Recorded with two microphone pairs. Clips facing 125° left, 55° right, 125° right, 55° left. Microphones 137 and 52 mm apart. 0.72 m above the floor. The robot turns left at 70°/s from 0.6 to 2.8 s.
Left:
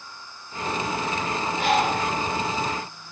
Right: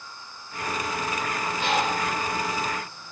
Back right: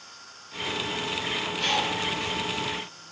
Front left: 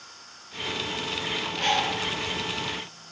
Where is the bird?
120° left, 4 m; by 3.1 s 35° left, 4 m.